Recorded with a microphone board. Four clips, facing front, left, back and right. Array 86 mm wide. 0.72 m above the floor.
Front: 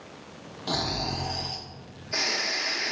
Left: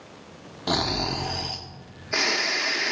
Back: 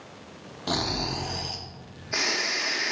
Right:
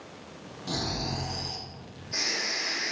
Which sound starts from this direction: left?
Snoring, at 0.7 s.